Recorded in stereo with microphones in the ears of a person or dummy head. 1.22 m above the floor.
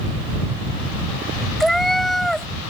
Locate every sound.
1.6 s a cat meowing: 5° left (ahead or behind)